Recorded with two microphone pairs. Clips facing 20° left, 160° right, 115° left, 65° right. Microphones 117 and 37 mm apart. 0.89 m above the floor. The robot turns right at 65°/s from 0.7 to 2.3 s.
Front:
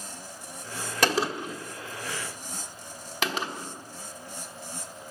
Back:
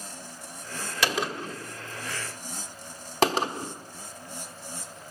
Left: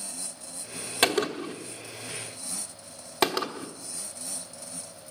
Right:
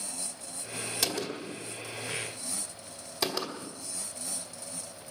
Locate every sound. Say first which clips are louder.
1.0 s a gunshot: front 3 dB, left 10 dB; 65° left, 1.2 m; by 3.7 s 145° left, 1.2 m